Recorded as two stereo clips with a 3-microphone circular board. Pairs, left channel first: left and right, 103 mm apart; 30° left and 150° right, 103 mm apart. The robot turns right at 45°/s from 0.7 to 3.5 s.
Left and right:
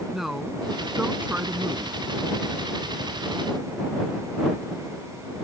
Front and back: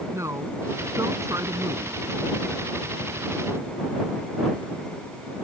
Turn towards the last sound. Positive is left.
turn(degrees=-50)